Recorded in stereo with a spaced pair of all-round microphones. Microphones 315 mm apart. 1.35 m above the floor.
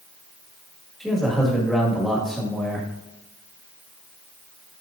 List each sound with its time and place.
1.0 s a man speaking: centre (ahead or behind), 1.7 m